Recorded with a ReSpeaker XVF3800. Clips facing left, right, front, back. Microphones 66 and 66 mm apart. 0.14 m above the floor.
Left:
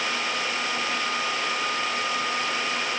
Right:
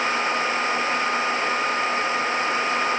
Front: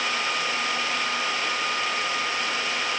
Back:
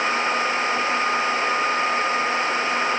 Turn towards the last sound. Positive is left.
No sound to turn to.